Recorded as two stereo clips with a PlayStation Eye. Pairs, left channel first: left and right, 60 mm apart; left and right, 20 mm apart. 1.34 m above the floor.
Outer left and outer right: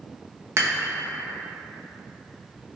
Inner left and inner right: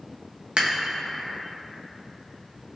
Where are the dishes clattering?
55° right (ahead or behind), 1.0 m.